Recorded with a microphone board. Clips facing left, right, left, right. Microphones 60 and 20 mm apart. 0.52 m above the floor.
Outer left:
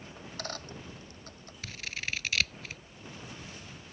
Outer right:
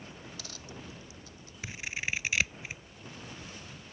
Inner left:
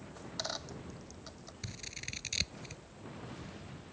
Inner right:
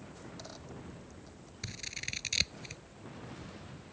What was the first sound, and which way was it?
A dropped coin, 50° left (ahead or behind).